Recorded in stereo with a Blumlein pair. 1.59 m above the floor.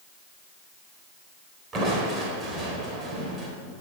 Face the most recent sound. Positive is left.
turn(degrees=-20)